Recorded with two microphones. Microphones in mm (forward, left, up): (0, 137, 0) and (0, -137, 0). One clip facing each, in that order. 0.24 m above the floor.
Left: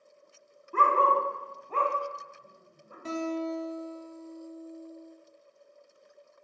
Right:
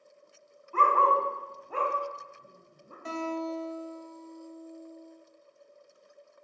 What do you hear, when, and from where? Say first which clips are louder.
0.7 s a dog barking: left 1 dB; 45° left (ahead or behind), 0.7 m; by 3.0 s 50° right (ahead or behind), 0.9 m
3.0 s a guitar: left 2 dB; 45° left (ahead or behind), 0.7 m